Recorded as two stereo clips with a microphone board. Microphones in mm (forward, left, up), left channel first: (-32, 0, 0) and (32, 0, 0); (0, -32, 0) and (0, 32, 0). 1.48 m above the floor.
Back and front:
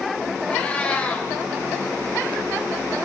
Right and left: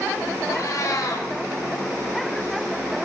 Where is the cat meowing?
110° right, 3 m.